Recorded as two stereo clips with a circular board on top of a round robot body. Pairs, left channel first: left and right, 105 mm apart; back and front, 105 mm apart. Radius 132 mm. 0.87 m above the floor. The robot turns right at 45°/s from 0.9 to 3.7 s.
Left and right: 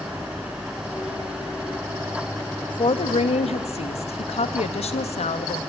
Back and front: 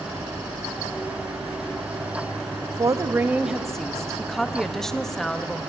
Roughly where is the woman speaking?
Ahead left.